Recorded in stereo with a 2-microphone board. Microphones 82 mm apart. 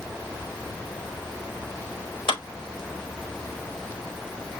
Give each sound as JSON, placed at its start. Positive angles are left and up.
{"t": 2.3, "sound": "a clap", "side_deg": 85, "distance_m": 4.5}